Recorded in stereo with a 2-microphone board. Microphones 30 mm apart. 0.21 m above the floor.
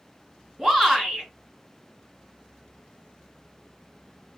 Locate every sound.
0.6 s a shout: 5° right (ahead or behind), 1.9 m